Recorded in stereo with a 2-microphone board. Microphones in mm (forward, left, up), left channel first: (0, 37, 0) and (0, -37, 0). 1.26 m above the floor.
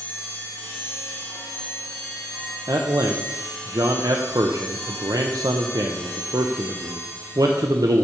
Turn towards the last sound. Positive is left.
turn(degrees=-60)  # may be behind; listen again after turning